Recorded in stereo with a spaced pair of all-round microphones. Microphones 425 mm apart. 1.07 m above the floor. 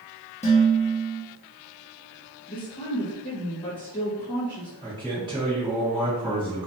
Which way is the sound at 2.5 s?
10° left (ahead or behind).